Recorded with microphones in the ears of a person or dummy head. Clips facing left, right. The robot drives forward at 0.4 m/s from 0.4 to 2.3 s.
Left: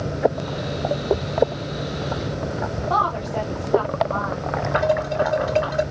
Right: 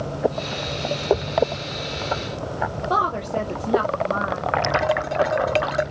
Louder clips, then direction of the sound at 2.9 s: Even; 30° right (ahead or behind).